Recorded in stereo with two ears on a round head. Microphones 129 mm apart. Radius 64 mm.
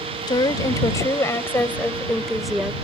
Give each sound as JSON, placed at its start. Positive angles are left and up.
{"t": 0.3, "sound": "a woman speaking", "side_deg": 30}